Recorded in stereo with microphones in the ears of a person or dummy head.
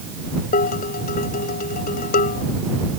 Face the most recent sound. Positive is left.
turn(degrees=45)  # may be behind; listen again after turning